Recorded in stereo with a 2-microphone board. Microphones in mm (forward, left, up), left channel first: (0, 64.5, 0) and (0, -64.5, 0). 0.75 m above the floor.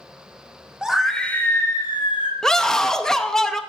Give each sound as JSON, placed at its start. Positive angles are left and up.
{"t": 0.8, "sound": "a scream", "side_deg": -5, "distance_m": 1.1}
{"t": 2.4, "sound": "a scream", "side_deg": 5, "distance_m": 0.6}